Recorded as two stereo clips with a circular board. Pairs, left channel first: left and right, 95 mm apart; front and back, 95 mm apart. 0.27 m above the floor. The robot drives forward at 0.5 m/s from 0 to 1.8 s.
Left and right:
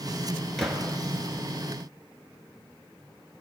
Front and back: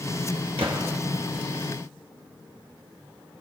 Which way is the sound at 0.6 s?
Straight behind.